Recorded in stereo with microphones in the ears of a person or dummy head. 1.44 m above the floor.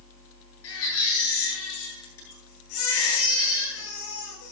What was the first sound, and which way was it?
A baby crying, 75° left (ahead or behind).